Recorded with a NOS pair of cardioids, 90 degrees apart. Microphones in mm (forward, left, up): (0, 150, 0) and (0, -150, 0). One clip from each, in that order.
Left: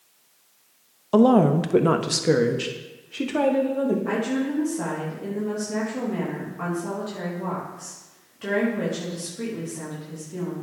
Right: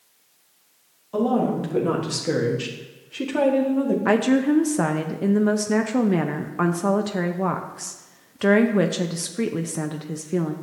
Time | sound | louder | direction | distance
1.1 | a woman speaking | left 5 dB | 65° left | 0.9 m
4.0 | a woman speaking | right 6 dB | 65° right | 0.7 m